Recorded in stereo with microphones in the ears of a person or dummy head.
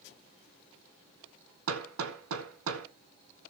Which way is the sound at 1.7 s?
85° right.